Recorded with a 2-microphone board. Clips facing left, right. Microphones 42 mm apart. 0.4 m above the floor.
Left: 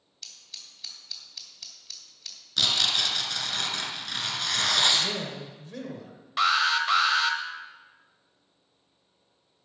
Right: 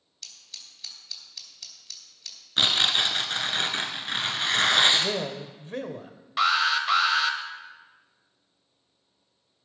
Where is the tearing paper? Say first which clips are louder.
Right 3 dB; 35° right (ahead or behind), 1.1 m.